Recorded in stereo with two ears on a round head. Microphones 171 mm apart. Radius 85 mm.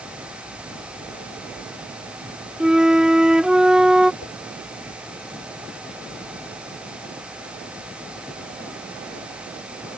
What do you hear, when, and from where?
2.6 s a flute: 5° right (ahead or behind)
4.2 s a whoosh: 90° left